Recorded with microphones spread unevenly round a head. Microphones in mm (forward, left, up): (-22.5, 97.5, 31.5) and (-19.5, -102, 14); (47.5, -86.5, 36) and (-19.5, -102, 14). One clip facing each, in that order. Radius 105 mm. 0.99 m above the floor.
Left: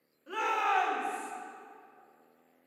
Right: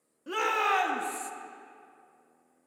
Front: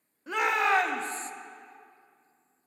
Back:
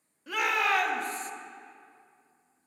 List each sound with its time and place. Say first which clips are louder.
0.3 s a shout: right 3 dB, front 2 dB; 55° right, 1.7 m